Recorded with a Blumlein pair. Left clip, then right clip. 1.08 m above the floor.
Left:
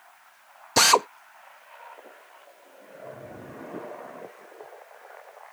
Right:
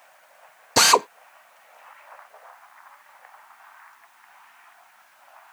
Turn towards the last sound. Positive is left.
turn(degrees=-5)